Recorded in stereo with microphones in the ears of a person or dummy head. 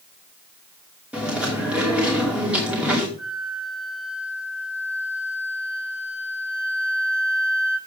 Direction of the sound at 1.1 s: 10° right (ahead or behind).